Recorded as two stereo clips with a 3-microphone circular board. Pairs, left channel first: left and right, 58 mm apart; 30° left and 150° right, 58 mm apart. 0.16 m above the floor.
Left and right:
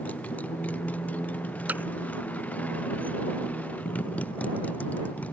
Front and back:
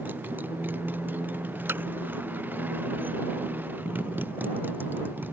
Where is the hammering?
130° right.